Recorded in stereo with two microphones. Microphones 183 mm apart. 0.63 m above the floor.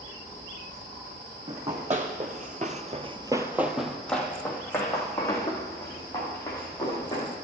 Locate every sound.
1.5 s running footsteps: 40° right (ahead or behind), 1.7 m; by 7.3 s 20° left (ahead or behind), 4 m